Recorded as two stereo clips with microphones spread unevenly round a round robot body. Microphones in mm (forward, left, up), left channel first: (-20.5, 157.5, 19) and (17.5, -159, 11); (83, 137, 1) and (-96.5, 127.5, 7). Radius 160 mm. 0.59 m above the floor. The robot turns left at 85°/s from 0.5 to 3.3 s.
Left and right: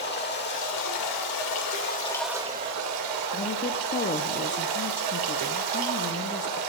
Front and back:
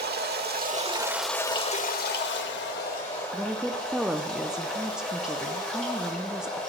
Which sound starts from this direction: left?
A woman speaking, at 3.3 s.